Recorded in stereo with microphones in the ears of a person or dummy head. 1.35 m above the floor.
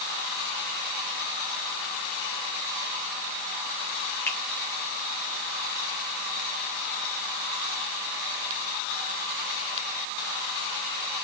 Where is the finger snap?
10° left (ahead or behind), 2 m.